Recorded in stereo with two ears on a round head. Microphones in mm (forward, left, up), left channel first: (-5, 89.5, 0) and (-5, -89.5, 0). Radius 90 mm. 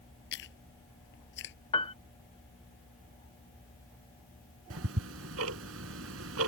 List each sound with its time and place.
0.3 s chewing: 60° left (ahead or behind)
1.7 s a piano: 25° left (ahead or behind)
4.7 s ticking: 85° right